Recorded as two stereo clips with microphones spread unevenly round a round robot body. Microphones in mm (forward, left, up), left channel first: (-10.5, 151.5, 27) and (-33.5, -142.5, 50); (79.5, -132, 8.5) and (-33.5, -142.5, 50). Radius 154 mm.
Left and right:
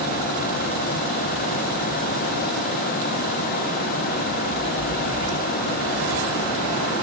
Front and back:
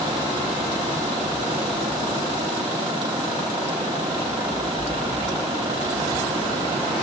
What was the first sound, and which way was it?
Only background noise.